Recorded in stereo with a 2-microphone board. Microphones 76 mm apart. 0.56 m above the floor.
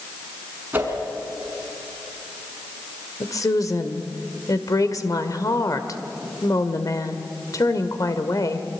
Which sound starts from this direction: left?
A woman speaking, at 3.2 s.